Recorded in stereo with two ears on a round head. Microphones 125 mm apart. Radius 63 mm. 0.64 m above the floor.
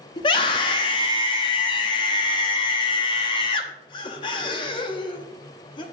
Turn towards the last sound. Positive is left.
turn(degrees=35)  # may be behind; listen again after turning